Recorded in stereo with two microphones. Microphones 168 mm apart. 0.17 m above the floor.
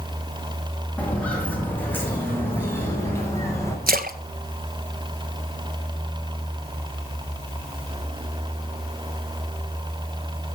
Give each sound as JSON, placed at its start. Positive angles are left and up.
{"t": 1.0, "sound": "footsteps", "side_deg": 10, "distance_m": 7.0}
{"t": 3.9, "sound": "a splash", "side_deg": -65, "distance_m": 1.0}